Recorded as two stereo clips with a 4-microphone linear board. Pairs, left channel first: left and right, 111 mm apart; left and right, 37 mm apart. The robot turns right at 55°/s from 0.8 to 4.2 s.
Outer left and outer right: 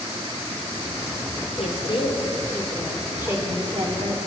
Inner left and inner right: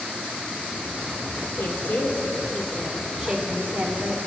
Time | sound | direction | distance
1.6 | a woman speaking | 110° left | 1.9 m